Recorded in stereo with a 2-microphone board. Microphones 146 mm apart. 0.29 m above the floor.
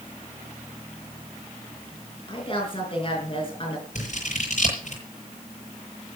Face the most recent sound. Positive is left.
turn(degrees=55)  # may be behind; listen again after turning